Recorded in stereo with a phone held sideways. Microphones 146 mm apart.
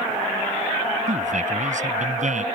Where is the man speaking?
60° right (ahead or behind).